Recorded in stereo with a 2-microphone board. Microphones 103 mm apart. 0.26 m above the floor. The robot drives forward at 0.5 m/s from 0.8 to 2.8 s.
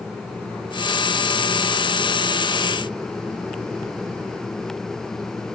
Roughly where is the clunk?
I don't hear a clunk.